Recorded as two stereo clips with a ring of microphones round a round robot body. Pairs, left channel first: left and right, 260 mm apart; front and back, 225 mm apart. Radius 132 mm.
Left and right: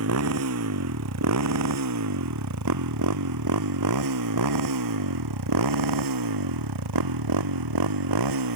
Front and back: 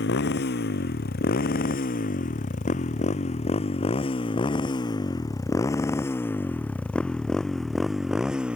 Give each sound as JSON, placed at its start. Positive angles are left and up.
{"t": 0.0, "sound": "a motorcycle", "azimuth_deg": -55}